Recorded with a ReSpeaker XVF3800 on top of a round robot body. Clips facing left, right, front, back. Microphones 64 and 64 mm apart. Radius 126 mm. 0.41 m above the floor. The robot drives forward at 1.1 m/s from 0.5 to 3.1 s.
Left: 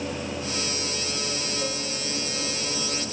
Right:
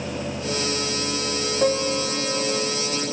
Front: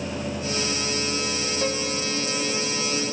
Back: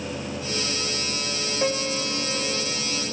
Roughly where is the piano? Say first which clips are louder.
Right 10 dB, back 3 dB; right.